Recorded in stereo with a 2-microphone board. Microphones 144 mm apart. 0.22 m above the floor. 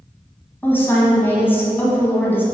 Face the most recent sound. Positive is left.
turn(degrees=15)  # may be behind; listen again after turning